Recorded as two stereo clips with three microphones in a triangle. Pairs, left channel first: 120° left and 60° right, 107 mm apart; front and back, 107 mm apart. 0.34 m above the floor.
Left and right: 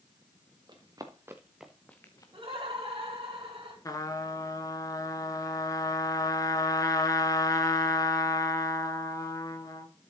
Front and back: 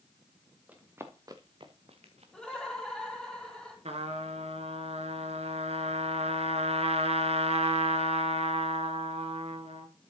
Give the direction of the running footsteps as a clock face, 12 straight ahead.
4 o'clock.